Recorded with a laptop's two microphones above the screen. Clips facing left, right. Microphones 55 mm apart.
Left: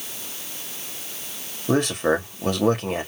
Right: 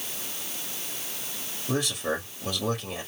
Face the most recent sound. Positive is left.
turn(degrees=50)  # may be behind; listen again after turning